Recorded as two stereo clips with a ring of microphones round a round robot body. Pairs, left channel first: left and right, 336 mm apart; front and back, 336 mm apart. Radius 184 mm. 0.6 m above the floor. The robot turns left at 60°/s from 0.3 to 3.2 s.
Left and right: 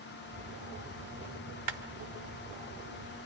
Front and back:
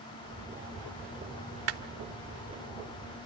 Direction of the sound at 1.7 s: 130° right.